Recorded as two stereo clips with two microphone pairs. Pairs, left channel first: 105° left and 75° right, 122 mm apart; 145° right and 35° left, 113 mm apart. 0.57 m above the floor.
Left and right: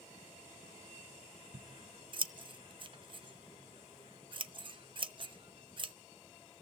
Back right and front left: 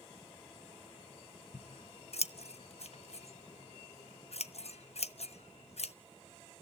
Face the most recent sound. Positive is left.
turn(degrees=-120)